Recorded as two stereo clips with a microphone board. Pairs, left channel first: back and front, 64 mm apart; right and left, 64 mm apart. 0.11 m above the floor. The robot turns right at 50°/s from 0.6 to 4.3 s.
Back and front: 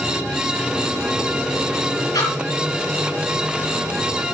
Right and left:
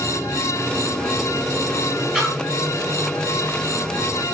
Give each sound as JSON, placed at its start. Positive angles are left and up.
{"t": 2.1, "sound": "a splash", "azimuth_deg": -175, "distance_m": 9.0}